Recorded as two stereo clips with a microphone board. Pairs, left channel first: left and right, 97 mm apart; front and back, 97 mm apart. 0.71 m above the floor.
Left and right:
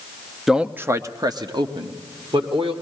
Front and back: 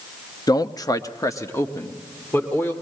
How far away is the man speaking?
About 0.6 m.